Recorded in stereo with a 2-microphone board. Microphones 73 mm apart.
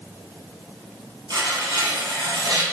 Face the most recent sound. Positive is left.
turn(degrees=-75)  # may be behind; listen again after turning